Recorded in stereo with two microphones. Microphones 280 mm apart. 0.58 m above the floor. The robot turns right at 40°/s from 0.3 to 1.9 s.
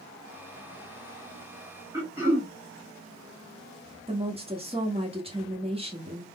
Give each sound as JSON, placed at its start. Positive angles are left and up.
{"t": 1.9, "sound": "throat clearing", "side_deg": -10, "distance_m": 1.7}
{"t": 4.1, "sound": "a woman speaking", "side_deg": -20, "distance_m": 1.0}